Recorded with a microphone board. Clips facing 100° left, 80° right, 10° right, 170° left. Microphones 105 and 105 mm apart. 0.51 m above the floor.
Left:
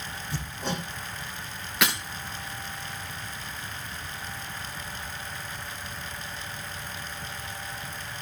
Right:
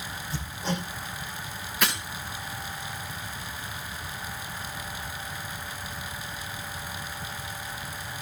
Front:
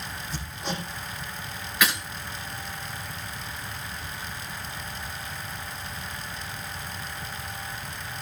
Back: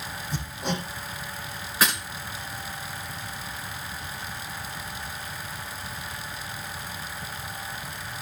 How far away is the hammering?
About 9 m.